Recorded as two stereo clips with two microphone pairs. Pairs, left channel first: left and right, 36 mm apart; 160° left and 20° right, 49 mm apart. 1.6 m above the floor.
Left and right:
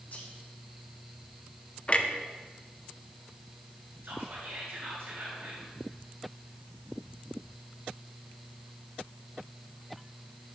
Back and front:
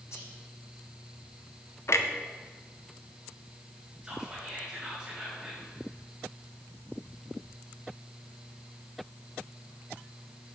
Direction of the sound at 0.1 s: 135° left.